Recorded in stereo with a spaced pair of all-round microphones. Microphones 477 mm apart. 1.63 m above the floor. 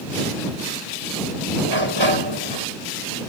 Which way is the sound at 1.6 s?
60° right (ahead or behind).